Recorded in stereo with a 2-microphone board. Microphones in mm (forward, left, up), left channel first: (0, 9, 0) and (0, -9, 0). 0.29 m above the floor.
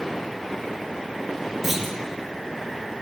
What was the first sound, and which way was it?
A clunk, 10° right (ahead or behind).